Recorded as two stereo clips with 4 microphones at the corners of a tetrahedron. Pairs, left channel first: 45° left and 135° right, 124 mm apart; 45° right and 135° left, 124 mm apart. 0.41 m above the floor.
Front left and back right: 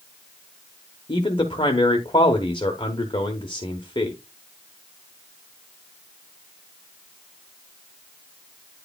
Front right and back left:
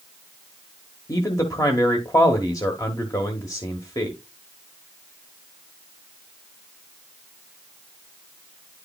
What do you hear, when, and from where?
1.1 s a man speaking: 5° left, 1.2 m